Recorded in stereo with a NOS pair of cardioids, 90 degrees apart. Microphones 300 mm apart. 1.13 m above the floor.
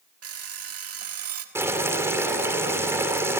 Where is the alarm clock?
50° right, 1.7 m.